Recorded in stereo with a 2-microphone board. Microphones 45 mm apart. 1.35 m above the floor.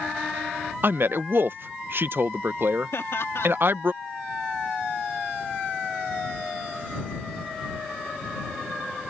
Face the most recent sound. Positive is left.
turn(degrees=70)  # may be behind; listen again after turning